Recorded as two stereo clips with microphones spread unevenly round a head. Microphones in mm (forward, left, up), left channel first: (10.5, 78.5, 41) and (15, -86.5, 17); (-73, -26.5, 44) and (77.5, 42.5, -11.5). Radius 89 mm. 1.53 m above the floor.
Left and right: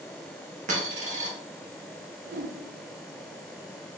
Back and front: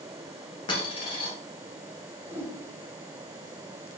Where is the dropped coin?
135° right, 1.0 m.